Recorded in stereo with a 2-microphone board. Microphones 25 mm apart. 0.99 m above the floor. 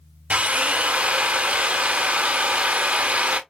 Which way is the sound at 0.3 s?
65° right (ahead or behind).